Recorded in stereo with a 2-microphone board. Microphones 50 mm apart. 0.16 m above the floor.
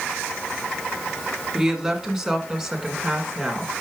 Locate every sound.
1.5 s a woman speaking: 10° right (ahead or behind), 1.6 m; by 3.7 s 5° right (ahead or behind), 2.5 m